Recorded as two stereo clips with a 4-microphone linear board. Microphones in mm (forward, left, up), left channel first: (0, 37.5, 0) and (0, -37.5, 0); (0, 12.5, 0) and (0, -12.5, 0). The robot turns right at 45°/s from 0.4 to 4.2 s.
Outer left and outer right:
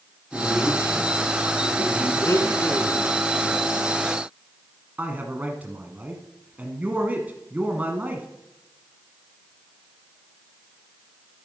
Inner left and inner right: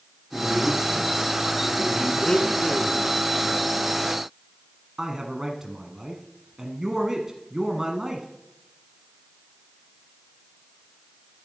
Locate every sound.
0.3 s a man speaking: 160° right, 6.5 m; by 2.1 s 85° right, 6.5 m
2.2 s a blender: 95° left, 0.9 m; by 3.1 s 135° left, 0.9 m
5.0 s a man speaking: 25° right (ahead or behind), 1.3 m